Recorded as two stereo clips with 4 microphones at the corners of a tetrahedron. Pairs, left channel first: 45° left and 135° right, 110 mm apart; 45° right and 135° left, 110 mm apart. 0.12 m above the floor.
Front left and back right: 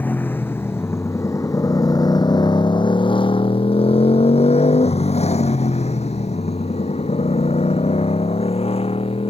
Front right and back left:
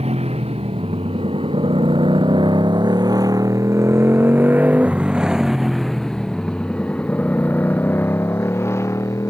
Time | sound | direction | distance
0.0 | a motorcycle | 120° left | ?